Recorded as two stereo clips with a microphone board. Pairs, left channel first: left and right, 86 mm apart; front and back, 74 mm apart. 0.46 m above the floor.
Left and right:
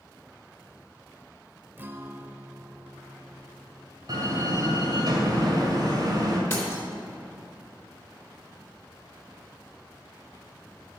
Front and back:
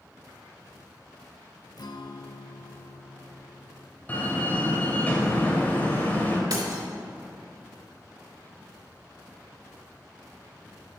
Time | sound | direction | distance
1.8 | a guitar | 25° right | 0.5 m
4.1 | a door slam | 60° right | 1.8 m
6.5 | breaking glass | 150° left | 3 m